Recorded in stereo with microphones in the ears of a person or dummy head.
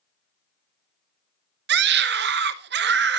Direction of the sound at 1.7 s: 55° right (ahead or behind).